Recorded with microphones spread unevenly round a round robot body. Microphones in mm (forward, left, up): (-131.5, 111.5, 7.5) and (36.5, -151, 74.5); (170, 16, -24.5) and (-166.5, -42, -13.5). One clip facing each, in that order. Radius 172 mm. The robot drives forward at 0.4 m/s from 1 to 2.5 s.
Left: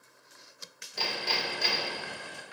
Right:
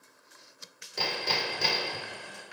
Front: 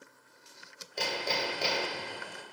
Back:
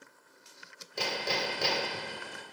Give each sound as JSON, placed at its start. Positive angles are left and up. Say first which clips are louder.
{"t": 1.0, "sound": "hammering", "louder": "right 2 dB, even", "azimuth_deg": -95, "distance_m": 2.0}